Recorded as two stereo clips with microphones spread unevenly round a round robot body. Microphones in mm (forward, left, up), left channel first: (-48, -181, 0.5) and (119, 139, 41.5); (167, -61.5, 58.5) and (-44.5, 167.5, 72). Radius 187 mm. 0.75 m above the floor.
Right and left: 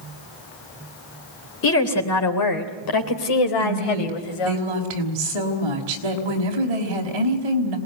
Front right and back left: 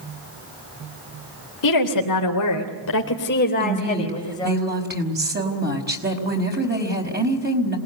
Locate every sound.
1.6 s a woman speaking: 65° right, 3.5 m; by 4.6 s 130° right, 5 m
3.6 s a woman speaking: 75° left, 5 m